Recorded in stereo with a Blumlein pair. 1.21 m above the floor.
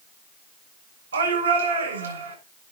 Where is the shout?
70° right, 7.5 m.